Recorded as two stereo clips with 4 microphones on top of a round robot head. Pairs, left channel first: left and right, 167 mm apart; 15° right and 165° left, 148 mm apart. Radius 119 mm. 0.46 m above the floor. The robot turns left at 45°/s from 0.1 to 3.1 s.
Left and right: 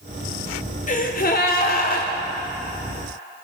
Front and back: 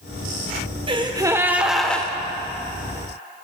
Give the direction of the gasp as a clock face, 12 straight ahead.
8 o'clock.